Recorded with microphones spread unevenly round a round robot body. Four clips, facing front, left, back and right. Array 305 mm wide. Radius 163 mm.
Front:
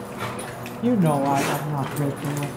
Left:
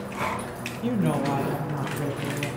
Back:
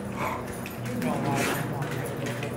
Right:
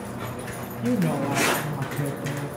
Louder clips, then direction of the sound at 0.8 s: Right 1 dB, front 9 dB; 5° left.